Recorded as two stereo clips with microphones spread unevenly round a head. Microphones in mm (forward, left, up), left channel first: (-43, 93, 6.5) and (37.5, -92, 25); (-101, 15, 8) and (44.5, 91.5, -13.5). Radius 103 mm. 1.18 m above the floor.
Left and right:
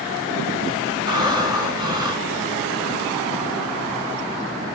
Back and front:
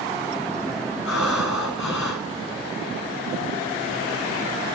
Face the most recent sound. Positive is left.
turn(degrees=-135)